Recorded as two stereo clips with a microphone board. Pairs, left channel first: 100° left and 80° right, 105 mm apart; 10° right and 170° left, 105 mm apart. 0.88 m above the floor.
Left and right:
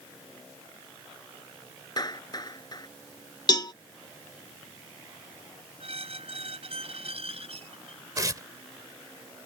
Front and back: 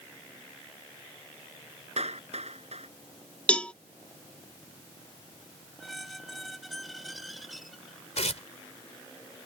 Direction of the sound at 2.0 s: 155° left.